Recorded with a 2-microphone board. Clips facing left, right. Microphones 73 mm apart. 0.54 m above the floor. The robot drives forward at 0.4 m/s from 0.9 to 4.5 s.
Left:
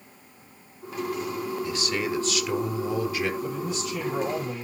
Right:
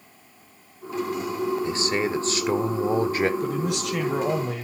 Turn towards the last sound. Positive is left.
turn(degrees=-80)